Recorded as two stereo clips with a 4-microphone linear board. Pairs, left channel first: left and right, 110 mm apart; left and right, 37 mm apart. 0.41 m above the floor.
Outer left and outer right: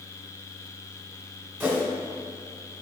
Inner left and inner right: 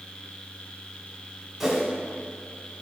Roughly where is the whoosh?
Centre.